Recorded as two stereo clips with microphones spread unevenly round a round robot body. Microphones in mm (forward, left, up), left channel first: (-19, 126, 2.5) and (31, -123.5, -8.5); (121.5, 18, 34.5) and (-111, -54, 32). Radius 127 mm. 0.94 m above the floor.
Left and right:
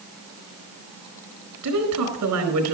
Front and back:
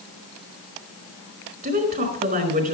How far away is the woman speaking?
About 4.5 m.